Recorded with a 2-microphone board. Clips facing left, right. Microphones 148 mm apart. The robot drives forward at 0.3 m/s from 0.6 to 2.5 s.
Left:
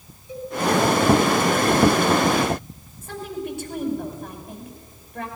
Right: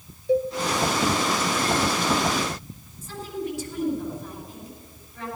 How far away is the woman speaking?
About 5.5 m.